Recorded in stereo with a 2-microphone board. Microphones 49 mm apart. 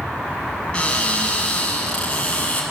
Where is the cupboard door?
20° left (ahead or behind), 7 m.